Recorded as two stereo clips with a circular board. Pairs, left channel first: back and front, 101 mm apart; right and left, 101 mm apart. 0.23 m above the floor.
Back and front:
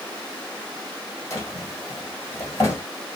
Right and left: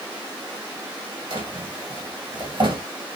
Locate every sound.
1.3 s a drawer: 125° left, 1.6 m